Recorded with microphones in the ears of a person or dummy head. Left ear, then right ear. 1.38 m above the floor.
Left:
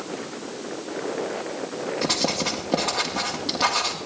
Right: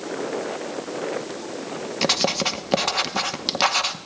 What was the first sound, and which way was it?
Writing, 70° right (ahead or behind).